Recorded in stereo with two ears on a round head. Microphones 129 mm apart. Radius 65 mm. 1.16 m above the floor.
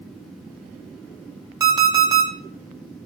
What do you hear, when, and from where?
1.6 s an alarm clock: 20° right (ahead or behind), 0.7 m